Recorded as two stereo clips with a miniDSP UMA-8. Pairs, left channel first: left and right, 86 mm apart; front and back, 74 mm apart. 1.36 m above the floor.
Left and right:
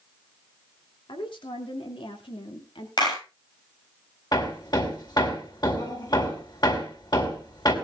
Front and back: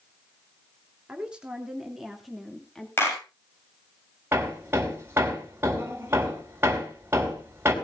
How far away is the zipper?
No zipper in this recording.